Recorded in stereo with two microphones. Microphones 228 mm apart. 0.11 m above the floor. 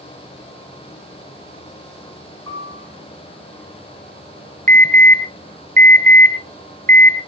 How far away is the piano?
About 7 m.